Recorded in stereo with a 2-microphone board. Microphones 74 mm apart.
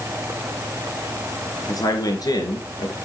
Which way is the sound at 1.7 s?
55° left (ahead or behind).